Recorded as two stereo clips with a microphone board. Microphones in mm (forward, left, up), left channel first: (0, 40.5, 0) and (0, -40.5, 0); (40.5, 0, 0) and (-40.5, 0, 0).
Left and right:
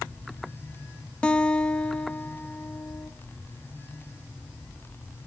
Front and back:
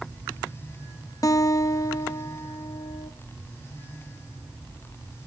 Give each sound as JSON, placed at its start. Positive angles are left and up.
{"t": 1.2, "sound": "a guitar", "azimuth_deg": 20, "distance_m": 0.7}